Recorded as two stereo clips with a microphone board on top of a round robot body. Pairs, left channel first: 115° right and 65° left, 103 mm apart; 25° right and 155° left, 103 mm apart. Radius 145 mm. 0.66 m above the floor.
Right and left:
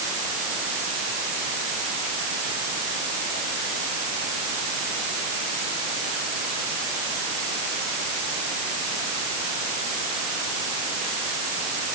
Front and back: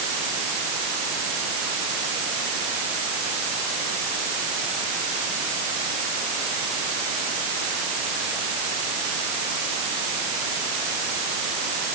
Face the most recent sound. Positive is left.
No sound to turn to.